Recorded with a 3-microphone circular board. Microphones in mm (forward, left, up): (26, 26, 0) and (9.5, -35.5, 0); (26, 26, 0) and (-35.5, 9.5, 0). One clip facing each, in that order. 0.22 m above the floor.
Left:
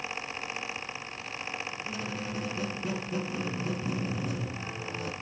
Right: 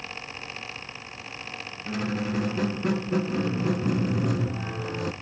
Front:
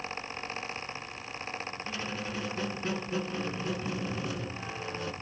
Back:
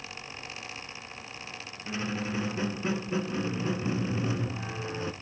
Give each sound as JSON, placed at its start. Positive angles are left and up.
{"t": 1.9, "sound": "a squeak", "azimuth_deg": -105, "distance_m": 0.7}